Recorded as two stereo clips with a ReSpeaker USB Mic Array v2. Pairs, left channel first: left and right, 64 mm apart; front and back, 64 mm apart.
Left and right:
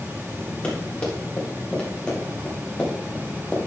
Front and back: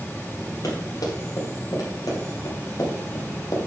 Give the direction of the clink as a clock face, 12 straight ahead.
I don't hear a clink.